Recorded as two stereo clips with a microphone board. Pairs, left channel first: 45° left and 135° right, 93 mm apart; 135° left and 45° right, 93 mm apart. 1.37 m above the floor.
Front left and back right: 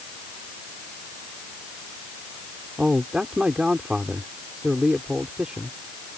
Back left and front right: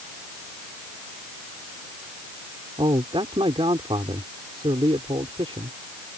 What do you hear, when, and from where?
2.8 s a man speaking: 55° right